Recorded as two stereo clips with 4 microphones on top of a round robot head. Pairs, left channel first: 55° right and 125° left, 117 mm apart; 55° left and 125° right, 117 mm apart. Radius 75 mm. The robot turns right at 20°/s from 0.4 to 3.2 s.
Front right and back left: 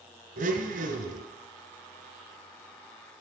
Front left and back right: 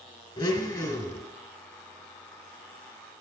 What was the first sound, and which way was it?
A blender, 105° left.